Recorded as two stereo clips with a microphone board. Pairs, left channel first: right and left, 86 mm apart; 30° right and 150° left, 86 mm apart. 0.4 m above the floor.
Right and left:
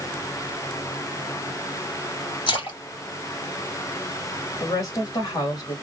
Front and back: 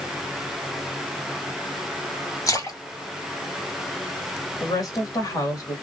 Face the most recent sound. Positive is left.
turn(degrees=-60)